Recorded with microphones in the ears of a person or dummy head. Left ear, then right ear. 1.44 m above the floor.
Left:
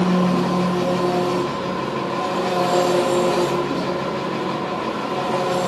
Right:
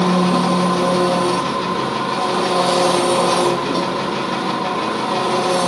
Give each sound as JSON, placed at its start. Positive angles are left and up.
{"t": 0.0, "sound": "an engine running", "side_deg": -55, "distance_m": 1.2}